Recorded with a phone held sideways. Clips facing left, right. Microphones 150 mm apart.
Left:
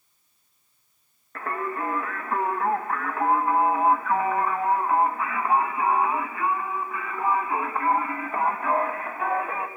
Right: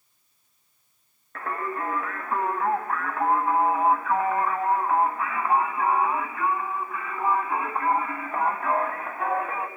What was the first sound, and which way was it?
Singing, centre (ahead or behind).